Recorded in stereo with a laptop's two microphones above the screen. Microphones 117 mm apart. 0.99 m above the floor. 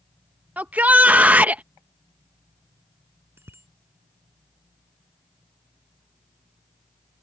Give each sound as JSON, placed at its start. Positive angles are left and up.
{"t": 0.6, "sound": "a shout", "side_deg": -15}
{"t": 3.4, "sound": "a bicycle bell", "side_deg": -20}